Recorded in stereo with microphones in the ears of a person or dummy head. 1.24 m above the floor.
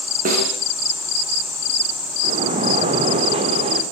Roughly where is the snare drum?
Right.